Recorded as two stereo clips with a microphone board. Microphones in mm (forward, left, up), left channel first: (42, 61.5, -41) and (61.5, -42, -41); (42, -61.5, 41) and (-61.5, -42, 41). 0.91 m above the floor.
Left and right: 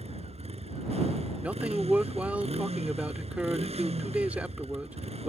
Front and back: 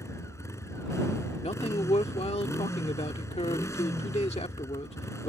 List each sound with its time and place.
0.0 s a motorcycle: 75° right
1.4 s a man speaking: 5° right